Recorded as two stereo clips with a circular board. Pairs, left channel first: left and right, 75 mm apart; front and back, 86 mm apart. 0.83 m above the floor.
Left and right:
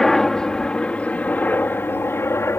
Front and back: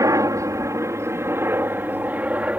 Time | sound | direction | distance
0.0 | a helicopter | 170° left | ?